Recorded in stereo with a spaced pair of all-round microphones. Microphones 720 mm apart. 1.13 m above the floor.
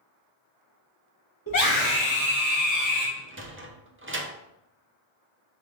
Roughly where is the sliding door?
Centre.